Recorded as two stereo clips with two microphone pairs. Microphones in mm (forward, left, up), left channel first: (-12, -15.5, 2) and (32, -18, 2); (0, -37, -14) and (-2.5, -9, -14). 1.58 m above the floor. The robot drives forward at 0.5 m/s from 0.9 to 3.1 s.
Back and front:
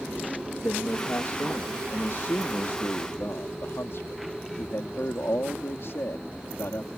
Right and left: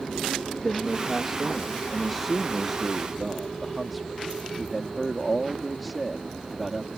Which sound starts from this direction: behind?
A man speaking, at 0.6 s.